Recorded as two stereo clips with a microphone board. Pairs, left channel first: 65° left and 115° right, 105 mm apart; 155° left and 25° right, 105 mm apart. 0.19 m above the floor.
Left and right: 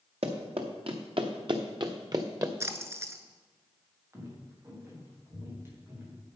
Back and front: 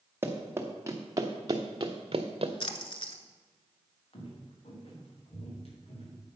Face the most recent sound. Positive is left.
turn(degrees=180)